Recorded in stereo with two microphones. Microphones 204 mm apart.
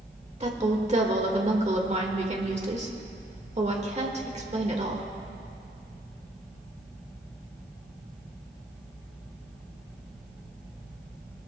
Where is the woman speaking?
35° right (ahead or behind), 1.7 m.